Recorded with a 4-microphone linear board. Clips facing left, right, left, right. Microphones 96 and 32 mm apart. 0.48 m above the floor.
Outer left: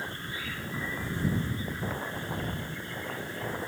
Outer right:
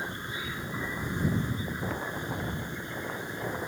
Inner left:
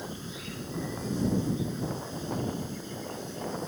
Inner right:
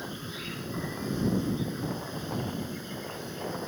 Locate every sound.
0.0 s an insect: 20° right (ahead or behind)